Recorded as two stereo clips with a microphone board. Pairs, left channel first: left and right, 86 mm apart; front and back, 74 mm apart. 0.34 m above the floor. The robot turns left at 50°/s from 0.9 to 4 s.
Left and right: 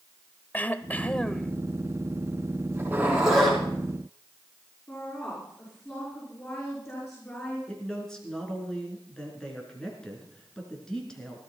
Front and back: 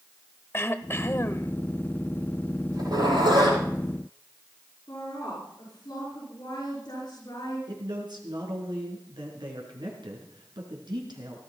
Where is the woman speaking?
30° left, 5.5 m.